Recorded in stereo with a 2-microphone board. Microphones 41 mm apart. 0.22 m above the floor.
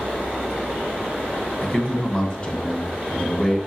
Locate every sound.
1.6 s a man speaking: 25° left (ahead or behind), 1.5 m